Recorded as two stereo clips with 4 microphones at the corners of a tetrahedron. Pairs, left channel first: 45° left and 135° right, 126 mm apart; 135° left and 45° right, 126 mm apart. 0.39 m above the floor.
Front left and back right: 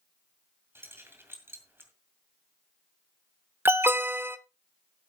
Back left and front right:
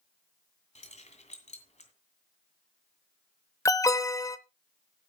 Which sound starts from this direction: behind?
An alarm, at 3.6 s.